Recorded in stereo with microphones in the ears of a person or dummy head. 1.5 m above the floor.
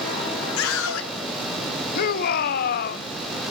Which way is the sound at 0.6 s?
75° left (ahead or behind).